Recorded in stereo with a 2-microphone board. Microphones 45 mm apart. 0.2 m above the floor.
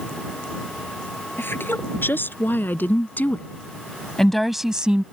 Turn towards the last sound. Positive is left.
turn(degrees=-25)  # may be behind; listen again after turning